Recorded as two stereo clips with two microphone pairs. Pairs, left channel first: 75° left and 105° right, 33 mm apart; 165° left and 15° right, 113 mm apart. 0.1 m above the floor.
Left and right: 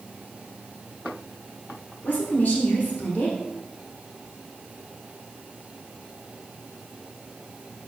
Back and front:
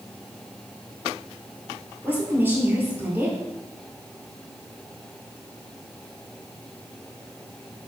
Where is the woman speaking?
50° left, 1.7 m.